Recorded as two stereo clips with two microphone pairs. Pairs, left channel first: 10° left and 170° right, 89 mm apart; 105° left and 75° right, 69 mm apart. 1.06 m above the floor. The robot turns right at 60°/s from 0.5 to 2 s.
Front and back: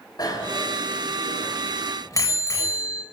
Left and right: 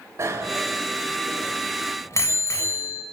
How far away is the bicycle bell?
About 3.5 m.